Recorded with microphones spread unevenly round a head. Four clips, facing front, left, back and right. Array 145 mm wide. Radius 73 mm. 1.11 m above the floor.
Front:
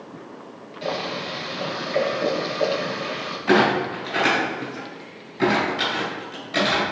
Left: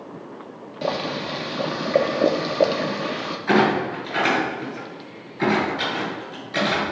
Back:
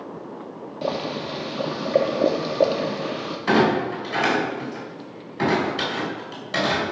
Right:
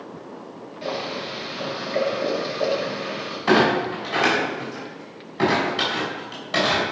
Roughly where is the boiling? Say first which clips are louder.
Left 3 dB, back 1 dB; behind left.